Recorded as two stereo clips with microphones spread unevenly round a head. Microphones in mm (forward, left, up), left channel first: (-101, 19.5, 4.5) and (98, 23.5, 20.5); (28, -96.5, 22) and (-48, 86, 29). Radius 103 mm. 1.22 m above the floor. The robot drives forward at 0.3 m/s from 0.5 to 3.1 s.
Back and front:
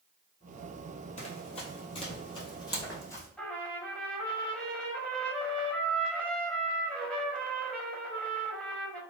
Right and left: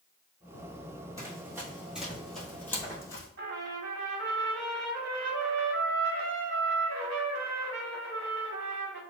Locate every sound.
1.2 s running footsteps: 165° left, 1.3 m; by 3.3 s 105° right, 1.3 m
3.4 s a trumpet: 95° left, 1.0 m